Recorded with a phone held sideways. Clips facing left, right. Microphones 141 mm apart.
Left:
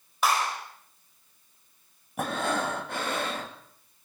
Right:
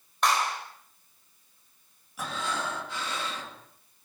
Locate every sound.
0.2 s a clap: 5° left (ahead or behind), 6.5 m
2.2 s breathing: 55° left (ahead or behind), 2.5 m